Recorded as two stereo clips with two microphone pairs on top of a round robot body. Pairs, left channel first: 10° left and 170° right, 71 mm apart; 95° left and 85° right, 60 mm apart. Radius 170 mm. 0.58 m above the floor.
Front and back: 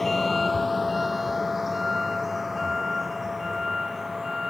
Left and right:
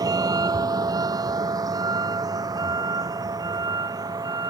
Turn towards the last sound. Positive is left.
turn(degrees=-85)